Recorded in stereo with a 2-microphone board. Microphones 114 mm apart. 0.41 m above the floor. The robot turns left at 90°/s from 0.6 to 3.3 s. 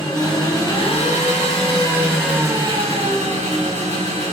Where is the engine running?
140° left, 1.0 m; by 4.3 s 105° right, 1.0 m.